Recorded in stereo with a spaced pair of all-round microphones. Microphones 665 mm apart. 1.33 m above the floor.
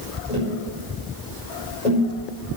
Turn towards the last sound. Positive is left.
turn(degrees=75)  # may be behind; listen again after turning